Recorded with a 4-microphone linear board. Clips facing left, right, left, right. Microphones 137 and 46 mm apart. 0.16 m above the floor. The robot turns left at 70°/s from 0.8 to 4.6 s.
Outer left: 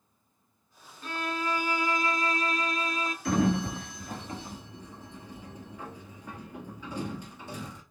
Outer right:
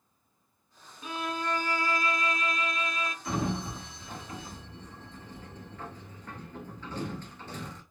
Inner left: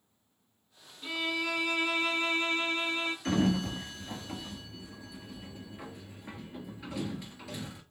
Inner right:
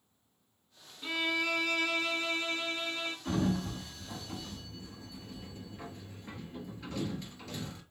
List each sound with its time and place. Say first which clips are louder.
1.0 s a violin: outer left 1 dB, inner right 1 dB; 160° right, 0.7 m; by 3.1 s 55° left, 0.7 m
3.2 s a sliding door: outer left 7 dB, inner left 3 dB; 65° left (ahead or behind), 0.8 m; by 7.8 s 10° left (ahead or behind), 0.8 m